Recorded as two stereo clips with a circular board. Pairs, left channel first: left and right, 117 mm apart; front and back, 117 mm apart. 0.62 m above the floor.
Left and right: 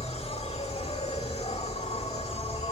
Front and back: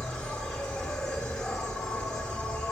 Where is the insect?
80° left, 1.6 m.